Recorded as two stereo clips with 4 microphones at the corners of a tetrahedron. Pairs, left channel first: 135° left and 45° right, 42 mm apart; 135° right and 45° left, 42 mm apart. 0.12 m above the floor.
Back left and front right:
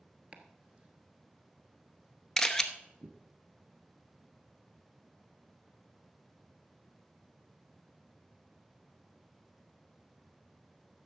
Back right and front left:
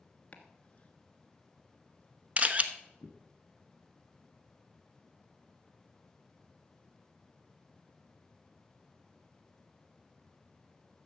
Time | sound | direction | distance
0.3 | chopping | 95° right | 1.1 m
2.4 | a camera shutter | 65° left | 0.7 m